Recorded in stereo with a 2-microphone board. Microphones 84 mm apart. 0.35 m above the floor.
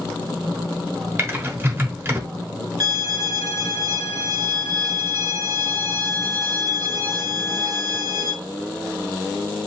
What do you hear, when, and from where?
1.2 s typing on a keyboard: 25° right (ahead or behind), 1.0 m
2.8 s a violin: 45° right (ahead or behind), 1.0 m